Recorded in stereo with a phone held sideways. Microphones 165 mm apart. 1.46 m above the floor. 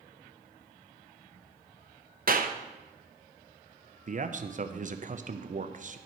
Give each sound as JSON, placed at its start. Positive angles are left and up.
{"t": 2.3, "sound": "a clap", "side_deg": -60, "distance_m": 0.6}
{"t": 4.1, "sound": "a man speaking", "side_deg": -50, "distance_m": 0.5}